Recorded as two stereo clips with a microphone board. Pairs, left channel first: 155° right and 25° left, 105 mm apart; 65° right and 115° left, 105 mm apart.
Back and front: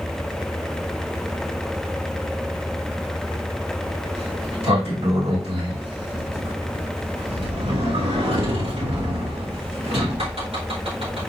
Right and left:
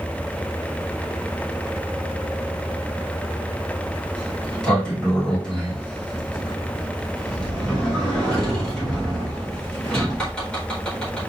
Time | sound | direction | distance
4.2 | a sliding door | 15° left | 4 m